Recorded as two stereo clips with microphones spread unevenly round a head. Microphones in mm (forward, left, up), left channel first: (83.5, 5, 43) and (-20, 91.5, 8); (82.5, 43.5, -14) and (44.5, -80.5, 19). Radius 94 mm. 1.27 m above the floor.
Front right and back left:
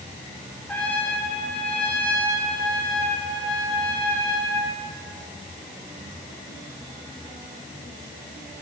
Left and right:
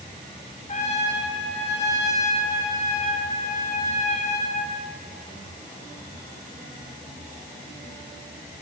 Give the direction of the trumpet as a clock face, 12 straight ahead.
11 o'clock.